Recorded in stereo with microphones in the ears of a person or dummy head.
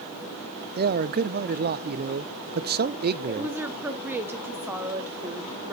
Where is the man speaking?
40° right (ahead or behind), 0.5 m.